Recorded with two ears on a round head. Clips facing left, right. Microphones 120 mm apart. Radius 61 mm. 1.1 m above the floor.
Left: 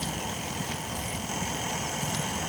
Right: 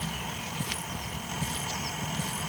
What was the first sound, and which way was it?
Only background noise.